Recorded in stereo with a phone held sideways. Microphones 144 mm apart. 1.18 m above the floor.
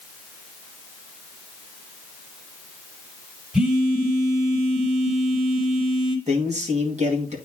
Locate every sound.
3.5 s a phone buzzing: 5° right (ahead or behind), 1.4 m
6.3 s a man speaking: 50° right (ahead or behind), 2 m